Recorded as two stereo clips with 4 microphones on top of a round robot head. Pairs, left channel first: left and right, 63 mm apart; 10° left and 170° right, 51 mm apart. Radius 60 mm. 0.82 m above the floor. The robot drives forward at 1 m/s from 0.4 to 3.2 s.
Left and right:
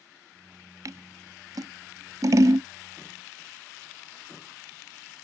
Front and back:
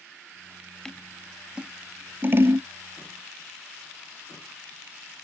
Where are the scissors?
70° right; by 2.7 s 135° right.